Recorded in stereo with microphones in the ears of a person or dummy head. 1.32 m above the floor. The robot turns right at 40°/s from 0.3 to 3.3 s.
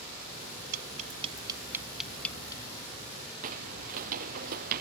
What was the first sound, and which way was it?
Tapping, 50° right (ahead or behind).